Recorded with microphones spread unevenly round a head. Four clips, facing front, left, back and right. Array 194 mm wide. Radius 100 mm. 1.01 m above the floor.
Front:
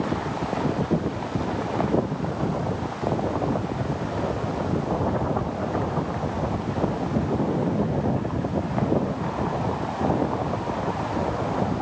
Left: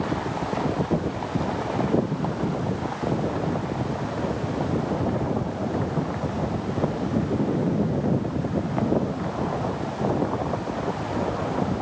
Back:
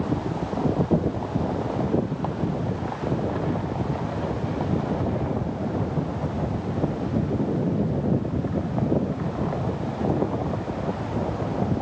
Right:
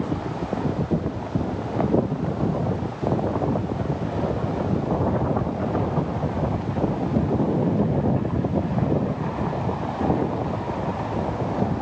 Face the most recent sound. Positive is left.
No sound to turn to.